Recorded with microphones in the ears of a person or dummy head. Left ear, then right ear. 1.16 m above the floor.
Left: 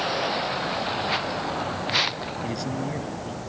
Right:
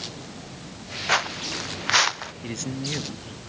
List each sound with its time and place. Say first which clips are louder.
1.1 s footsteps: right 2 dB; 45° right (ahead or behind); by 2.3 s 40° right (ahead or behind)
2.4 s a man speaking: right 1 dB; 25° right (ahead or behind)